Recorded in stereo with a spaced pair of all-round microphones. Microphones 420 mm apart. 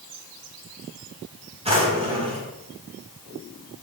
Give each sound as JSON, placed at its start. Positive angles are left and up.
{"t": 1.6, "sound": "a drawer", "side_deg": -15, "distance_m": 4.0}